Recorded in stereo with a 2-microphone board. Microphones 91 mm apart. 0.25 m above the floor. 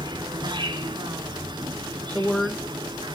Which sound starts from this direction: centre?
A woman speaking, at 2.1 s.